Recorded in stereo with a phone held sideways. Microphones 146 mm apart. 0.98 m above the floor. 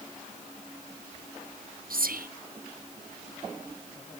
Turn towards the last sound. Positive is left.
turn(degrees=-80)